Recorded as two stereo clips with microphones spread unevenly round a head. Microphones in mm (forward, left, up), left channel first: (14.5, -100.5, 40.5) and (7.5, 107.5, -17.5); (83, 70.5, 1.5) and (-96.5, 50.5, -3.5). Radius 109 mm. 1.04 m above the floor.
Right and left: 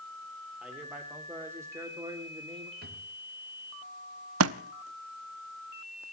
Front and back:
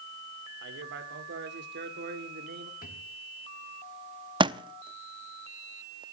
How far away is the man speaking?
About 4 m.